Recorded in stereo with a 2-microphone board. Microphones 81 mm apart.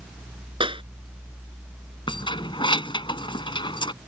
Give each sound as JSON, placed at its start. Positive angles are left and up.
{"t": 0.6, "sound": "a clap", "side_deg": -85}
{"t": 2.1, "sound": "keys jangling", "side_deg": 70}